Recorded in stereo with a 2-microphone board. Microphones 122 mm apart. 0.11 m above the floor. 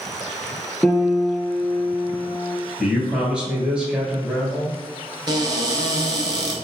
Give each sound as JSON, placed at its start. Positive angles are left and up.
{"t": 0.8, "sound": "a piano", "side_deg": 0, "distance_m": 0.7}
{"t": 2.8, "sound": "a man speaking", "side_deg": -10, "distance_m": 1.8}
{"t": 5.3, "sound": "a cupboard door", "side_deg": -35, "distance_m": 1.0}